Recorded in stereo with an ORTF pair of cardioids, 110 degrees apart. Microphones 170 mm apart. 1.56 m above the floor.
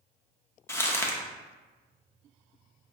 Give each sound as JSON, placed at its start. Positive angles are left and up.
{"t": 0.7, "sound": "crumpling", "azimuth_deg": 15, "distance_m": 0.5}